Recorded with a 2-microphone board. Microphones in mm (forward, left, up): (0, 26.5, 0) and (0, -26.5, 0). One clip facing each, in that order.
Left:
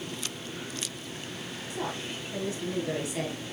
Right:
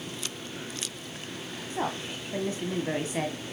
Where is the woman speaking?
35° right (ahead or behind), 1.5 m.